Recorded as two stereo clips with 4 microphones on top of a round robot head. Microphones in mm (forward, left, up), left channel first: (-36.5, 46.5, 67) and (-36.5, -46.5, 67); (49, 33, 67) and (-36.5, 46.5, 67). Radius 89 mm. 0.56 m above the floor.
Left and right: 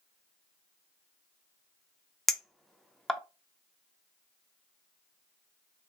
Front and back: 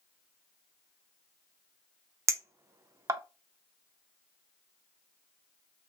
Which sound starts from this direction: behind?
A clink, at 2.3 s.